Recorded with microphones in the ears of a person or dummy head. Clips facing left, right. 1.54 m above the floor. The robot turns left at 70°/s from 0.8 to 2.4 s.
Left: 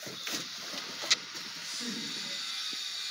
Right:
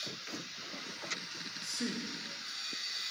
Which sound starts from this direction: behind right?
A man speaking, at 1.6 s.